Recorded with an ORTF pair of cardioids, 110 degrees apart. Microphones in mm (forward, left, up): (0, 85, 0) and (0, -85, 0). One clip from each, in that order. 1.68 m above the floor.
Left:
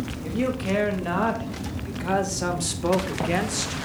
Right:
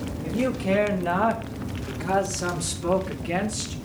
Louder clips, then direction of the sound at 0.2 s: Right 2 dB; 5° left.